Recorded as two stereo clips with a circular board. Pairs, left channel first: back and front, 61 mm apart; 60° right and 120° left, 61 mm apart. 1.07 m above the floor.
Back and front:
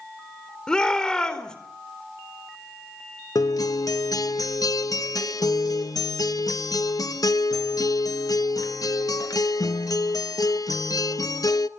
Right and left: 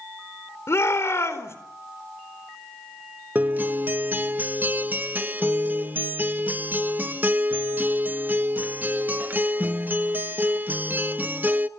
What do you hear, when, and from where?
0.7 s a shout: 100° right, 4.5 m
3.4 s a guitar: straight behind, 0.9 m